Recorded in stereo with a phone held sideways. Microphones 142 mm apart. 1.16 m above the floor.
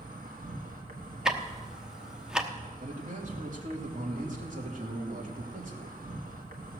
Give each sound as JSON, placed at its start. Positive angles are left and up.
{"t": 0.0, "sound": "an insect", "side_deg": -80, "distance_m": 1.4}
{"t": 1.2, "sound": "ticking", "side_deg": -5, "distance_m": 0.9}
{"t": 2.8, "sound": "a man speaking", "side_deg": -65, "distance_m": 2.5}